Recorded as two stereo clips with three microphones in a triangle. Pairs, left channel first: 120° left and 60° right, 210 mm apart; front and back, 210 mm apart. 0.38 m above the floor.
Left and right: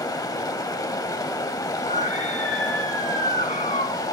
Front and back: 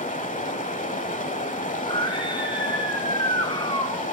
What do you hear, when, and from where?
0.0 s running water: 45° left, 1.0 m
1.8 s a scream: 65° left, 3 m